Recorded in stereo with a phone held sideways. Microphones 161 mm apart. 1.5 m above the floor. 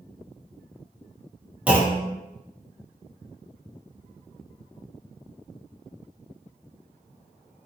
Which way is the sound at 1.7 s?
10° right (ahead or behind).